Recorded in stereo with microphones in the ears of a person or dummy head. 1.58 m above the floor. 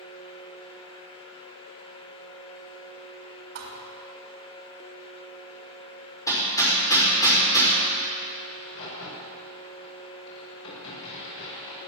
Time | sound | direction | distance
3.5 | a thud | 60° right (ahead or behind) | 3 m
6.3 | hammering | 25° left (ahead or behind) | 5 m
8.5 | a crack | 85° left | 6.5 m